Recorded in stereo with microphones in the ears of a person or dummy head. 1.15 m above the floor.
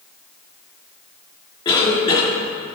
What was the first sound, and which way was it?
A cough, 25° left (ahead or behind).